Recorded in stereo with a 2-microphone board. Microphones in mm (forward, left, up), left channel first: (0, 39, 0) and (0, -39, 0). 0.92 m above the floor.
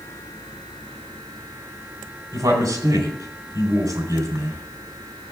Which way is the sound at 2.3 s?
55° right (ahead or behind).